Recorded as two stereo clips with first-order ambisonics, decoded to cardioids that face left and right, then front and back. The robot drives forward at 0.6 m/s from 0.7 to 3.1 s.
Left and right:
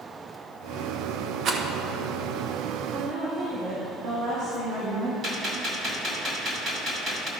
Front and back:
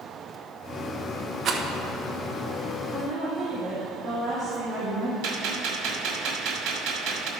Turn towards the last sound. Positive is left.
turn(degrees=-160)